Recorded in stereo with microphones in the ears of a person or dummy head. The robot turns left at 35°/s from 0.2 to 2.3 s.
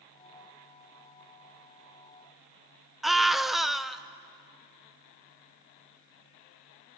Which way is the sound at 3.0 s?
Centre (ahead or behind).